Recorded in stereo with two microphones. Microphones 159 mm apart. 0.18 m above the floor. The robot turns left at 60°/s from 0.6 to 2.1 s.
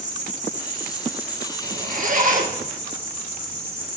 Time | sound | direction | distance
0.0 | an insect | 125° right | 4 m
1.6 | a zipper | 70° right (ahead or behind) | 2.5 m